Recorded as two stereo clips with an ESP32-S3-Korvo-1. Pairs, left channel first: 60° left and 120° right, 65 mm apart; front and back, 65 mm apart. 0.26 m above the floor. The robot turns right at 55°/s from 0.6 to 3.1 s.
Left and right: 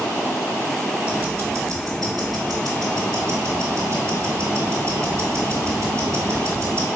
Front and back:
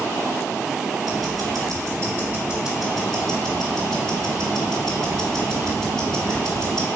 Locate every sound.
1.0 s ticking: 170° left, 2 m; by 6.9 s 75° right, 2 m